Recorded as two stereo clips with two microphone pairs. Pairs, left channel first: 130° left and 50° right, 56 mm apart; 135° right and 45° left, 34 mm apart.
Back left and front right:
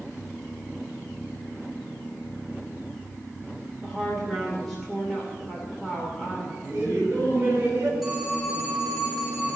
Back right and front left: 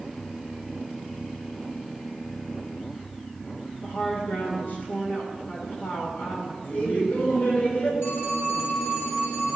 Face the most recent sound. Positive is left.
turn(degrees=-130)